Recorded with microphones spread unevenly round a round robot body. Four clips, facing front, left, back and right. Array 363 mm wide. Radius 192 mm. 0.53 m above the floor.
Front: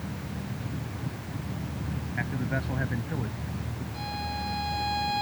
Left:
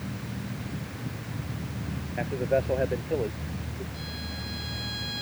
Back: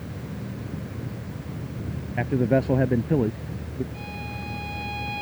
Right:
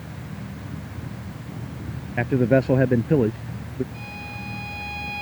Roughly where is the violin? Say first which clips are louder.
Right 2 dB, front 2 dB; ahead.